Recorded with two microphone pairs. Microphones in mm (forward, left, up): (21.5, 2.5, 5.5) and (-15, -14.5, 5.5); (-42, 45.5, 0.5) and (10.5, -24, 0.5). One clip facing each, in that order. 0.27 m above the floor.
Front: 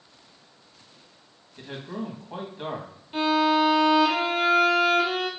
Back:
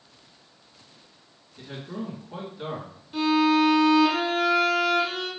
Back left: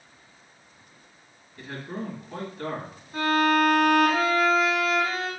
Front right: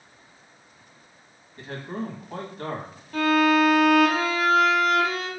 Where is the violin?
35° right, 2.5 m.